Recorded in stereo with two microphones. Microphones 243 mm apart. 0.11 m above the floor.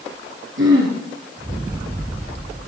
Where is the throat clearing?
50° right (ahead or behind), 3 m.